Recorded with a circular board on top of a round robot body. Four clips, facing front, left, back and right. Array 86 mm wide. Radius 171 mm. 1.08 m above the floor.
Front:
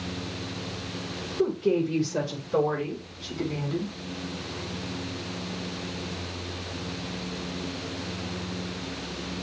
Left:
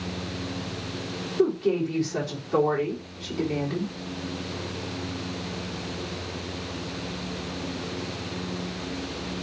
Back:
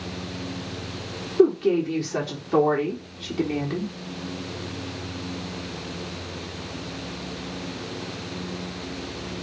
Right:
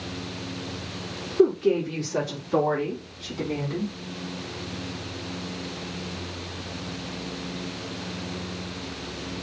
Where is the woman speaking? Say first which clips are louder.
Right 3 dB, back 6 dB; 165° right, 4.5 m; by 3.9 s straight behind, 3 m.